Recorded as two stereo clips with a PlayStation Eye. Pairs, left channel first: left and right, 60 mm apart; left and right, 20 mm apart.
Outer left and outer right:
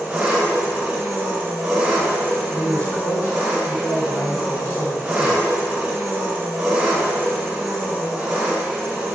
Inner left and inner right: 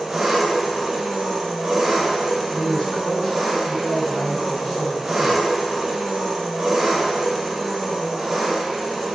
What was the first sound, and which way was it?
An engine running, 15° right (ahead or behind).